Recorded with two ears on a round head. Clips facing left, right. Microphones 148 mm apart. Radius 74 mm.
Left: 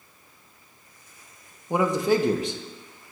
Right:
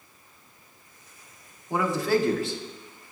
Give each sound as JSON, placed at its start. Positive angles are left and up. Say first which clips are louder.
{"t": 1.7, "sound": "a man speaking", "louder": "left 2 dB", "side_deg": 15, "distance_m": 0.5}